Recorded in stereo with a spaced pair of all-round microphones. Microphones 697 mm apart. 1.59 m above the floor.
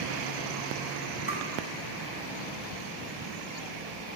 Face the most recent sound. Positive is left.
turn(degrees=-20)  # may be behind; listen again after turning